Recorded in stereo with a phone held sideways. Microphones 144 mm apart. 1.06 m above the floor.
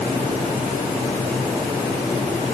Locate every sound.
Only background noise.